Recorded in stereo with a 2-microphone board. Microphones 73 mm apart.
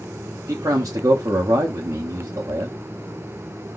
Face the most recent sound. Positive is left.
turn(degrees=-50)  # may be behind; listen again after turning